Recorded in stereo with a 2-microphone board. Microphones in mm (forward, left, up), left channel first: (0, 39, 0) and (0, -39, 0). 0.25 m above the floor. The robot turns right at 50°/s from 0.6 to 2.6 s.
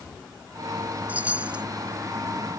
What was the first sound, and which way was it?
A chime, 20° right (ahead or behind).